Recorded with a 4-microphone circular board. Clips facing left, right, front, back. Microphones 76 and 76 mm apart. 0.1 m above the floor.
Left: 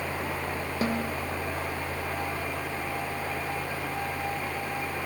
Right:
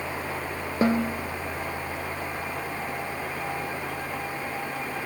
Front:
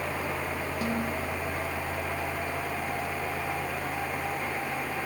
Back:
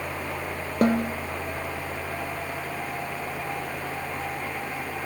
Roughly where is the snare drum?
Behind right.